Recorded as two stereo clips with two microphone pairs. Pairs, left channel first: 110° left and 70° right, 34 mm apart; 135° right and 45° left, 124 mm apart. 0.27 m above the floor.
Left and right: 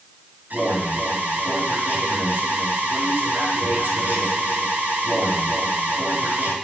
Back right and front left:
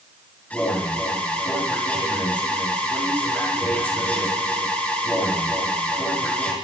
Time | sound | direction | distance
0.5 | an alarm | 60° right | 5.5 m